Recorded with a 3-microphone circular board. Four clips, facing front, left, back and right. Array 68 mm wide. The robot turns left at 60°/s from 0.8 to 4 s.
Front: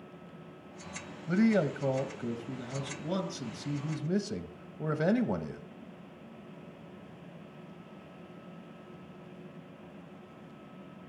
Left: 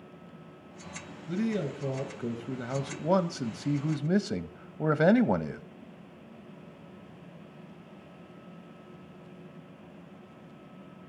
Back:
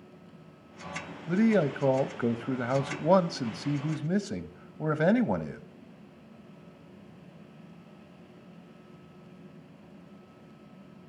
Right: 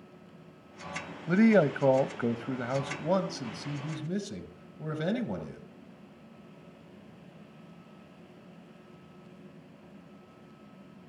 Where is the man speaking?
85° right, 0.7 m; by 5.6 s 110° left, 0.7 m.